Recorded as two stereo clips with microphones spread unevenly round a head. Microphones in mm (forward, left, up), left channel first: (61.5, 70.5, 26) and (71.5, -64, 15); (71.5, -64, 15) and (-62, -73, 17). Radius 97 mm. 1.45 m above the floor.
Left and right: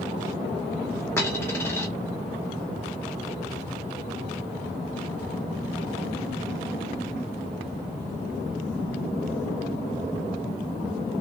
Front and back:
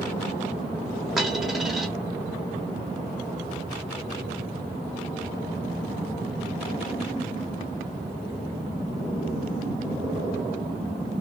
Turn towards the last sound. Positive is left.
turn(degrees=95)